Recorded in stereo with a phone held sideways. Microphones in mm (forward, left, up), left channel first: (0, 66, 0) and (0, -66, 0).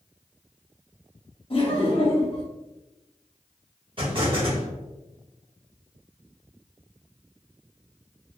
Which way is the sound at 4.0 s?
40° right (ahead or behind).